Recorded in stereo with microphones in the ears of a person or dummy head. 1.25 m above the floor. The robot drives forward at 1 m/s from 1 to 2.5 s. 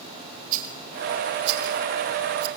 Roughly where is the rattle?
Right.